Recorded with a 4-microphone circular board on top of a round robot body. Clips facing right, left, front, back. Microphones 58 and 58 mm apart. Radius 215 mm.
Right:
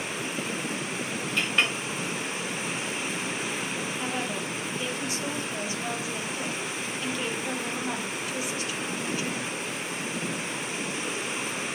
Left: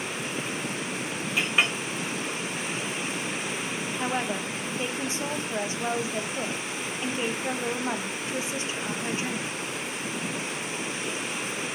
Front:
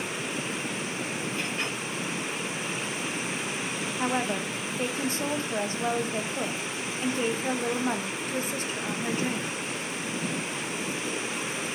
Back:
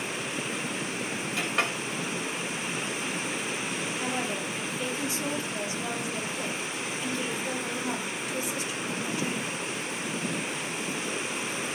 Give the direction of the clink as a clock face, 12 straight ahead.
6 o'clock.